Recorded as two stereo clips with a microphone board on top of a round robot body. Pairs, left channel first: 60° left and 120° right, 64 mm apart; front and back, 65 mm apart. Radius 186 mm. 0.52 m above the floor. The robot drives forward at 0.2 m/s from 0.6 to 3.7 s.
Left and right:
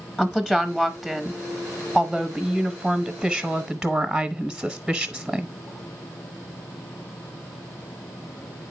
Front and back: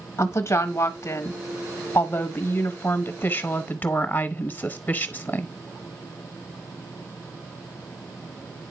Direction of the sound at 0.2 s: 20° right.